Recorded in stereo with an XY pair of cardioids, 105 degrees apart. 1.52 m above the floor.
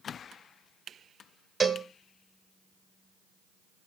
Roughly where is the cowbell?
Ahead right.